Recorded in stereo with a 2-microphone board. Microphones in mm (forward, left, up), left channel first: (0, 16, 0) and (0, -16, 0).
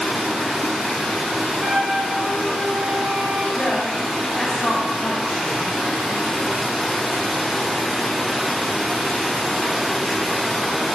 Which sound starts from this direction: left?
A woman speaking, at 3.5 s.